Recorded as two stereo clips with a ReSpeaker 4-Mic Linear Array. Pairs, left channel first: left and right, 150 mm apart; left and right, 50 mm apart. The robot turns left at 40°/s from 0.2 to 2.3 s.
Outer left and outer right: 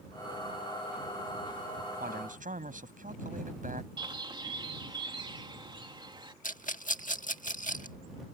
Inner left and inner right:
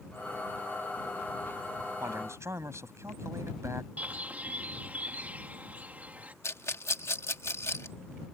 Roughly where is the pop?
I don't hear a pop.